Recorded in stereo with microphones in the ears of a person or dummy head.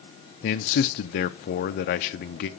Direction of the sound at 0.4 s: 45° left (ahead or behind).